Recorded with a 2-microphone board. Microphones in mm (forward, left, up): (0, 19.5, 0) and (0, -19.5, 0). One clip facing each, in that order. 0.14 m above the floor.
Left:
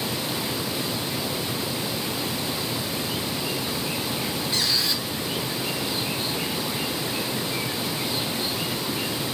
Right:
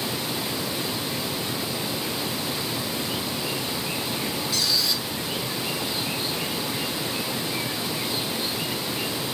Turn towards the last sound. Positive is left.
turn(degrees=30)  # may be behind; listen again after turning